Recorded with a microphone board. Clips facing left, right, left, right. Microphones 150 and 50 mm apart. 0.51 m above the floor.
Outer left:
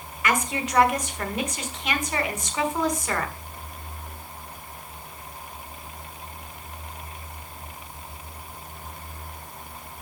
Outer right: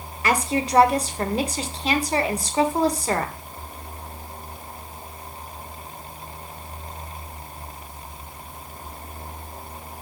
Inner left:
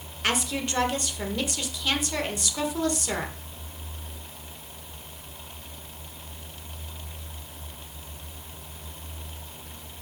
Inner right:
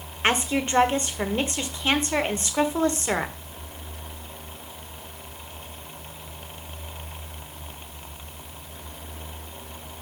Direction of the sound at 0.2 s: 35° right (ahead or behind).